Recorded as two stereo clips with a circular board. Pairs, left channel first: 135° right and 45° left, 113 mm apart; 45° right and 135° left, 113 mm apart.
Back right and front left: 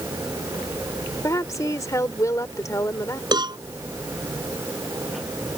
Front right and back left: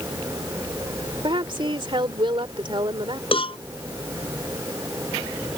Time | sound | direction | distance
1.2 | a woman speaking | 170° left | ?
3.3 | a cowbell | 5° right | ?